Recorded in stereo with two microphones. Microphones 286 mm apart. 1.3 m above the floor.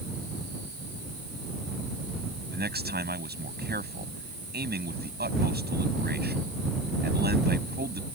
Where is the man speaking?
35° right (ahead or behind).